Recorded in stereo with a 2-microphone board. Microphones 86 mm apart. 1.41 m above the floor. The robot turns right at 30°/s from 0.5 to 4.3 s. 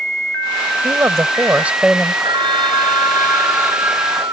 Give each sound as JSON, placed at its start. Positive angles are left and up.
{"t": 0.8, "sound": "a woman speaking", "azimuth_deg": -40}
{"t": 2.2, "sound": "a phone ringing", "azimuth_deg": -70}